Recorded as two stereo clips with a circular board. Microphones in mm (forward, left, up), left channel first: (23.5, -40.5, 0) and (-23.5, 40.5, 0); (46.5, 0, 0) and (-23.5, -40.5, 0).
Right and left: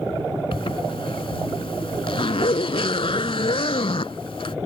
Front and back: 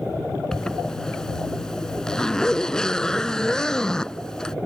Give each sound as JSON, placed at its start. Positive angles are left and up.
{"t": 0.5, "sound": "a zipper", "azimuth_deg": -50}